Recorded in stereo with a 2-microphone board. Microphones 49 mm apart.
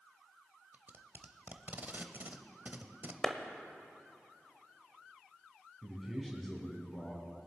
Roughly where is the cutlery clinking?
I don't hear cutlery clinking.